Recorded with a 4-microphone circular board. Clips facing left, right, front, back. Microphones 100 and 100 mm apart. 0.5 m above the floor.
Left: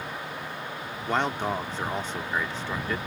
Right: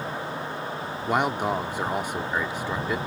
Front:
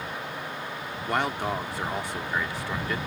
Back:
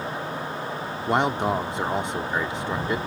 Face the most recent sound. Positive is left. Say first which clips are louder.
# right 2 dB, back 5 dB
turn(degrees=-150)